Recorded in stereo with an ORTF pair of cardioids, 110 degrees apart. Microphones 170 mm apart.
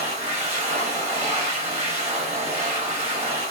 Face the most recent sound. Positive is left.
turn(degrees=-40)